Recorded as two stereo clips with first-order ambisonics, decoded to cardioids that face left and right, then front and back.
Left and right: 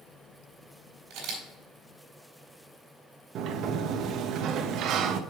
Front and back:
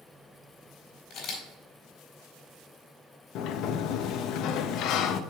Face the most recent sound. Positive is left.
turn(degrees=-40)